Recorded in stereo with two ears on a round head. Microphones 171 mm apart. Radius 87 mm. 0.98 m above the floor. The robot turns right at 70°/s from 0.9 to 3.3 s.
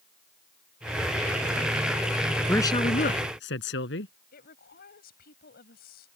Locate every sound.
2.5 s a man speaking: 10° left; by 4.1 s 65° left
4.3 s a woman speaking: 60° left (ahead or behind)